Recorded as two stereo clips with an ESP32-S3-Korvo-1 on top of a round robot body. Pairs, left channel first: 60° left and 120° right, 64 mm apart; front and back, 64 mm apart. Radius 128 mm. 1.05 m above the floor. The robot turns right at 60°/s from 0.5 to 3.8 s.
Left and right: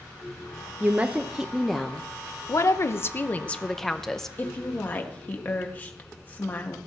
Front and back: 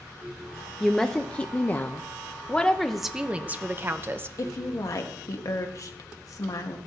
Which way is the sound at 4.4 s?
Straight ahead.